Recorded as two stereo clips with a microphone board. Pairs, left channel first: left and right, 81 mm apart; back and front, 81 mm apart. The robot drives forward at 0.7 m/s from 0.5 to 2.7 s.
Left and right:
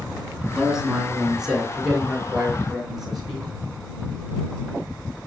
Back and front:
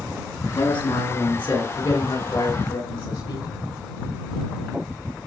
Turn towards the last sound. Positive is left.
turn(degrees=-175)